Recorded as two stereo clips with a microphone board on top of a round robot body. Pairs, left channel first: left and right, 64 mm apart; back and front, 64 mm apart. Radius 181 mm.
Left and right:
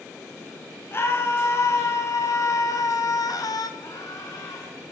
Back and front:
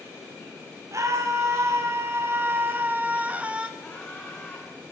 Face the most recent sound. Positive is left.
turn(degrees=115)